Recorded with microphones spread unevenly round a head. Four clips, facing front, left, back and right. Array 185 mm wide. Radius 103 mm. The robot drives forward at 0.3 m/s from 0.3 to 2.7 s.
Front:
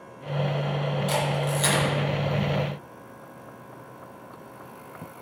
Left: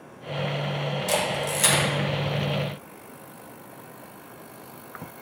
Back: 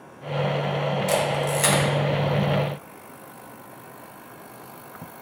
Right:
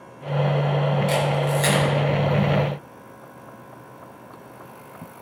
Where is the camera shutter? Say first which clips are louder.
Right 4 dB, back 3 dB; 170° right, 2 m.